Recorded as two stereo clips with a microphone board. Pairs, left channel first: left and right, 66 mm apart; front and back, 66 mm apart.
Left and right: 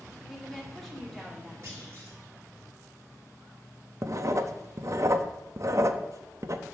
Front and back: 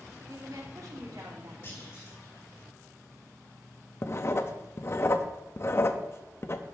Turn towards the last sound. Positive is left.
turn(degrees=-50)